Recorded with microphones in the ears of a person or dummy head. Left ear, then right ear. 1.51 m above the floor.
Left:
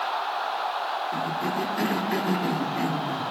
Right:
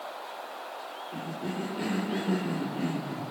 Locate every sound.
1.1 s a cough: 70° left (ahead or behind), 3 m